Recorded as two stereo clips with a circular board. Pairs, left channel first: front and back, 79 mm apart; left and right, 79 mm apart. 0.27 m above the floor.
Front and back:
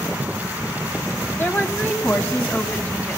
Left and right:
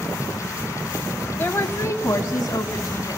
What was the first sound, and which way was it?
A woman speaking, 45° left.